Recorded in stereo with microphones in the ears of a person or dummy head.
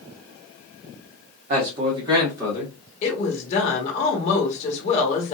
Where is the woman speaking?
45° left (ahead or behind), 1.3 m.